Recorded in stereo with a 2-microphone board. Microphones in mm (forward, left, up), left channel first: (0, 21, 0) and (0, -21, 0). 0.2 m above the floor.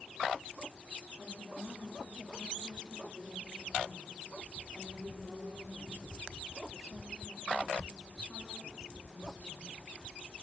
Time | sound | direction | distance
1.2 | a woman speaking | centre (ahead or behind) | 8 m